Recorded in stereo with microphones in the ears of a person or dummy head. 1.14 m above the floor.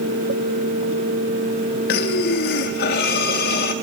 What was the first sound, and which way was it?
Breathing, 50° left (ahead or behind).